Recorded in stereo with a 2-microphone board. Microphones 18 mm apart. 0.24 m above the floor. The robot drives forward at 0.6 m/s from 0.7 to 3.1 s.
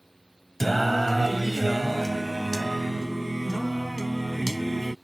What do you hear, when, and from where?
0.6 s singing: 5° left (ahead or behind)